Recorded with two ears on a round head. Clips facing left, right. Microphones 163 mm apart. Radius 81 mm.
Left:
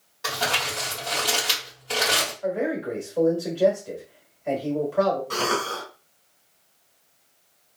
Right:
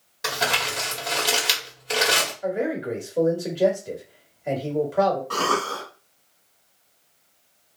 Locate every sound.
0.2 s crumpling: 20° right (ahead or behind), 1.5 m
2.4 s a man speaking: 20° right (ahead or behind), 1.2 m
5.3 s a cough: 20° left (ahead or behind), 1.6 m